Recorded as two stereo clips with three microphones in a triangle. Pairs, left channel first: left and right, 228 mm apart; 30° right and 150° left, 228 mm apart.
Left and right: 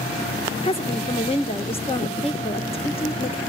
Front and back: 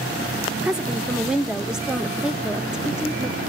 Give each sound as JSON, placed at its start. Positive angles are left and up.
{"t": 0.6, "sound": "a woman speaking", "azimuth_deg": 65, "distance_m": 0.8}